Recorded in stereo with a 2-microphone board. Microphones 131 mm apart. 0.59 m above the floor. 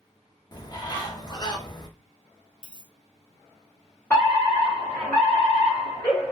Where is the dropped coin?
35° left (ahead or behind), 1.1 m.